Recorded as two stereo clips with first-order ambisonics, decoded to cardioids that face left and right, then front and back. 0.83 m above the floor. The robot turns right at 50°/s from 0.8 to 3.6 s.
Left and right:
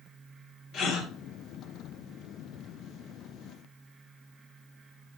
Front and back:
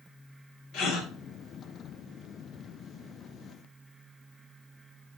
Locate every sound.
0.7 s a gasp: 35° left, 1.3 m; by 1.1 s 50° left, 1.3 m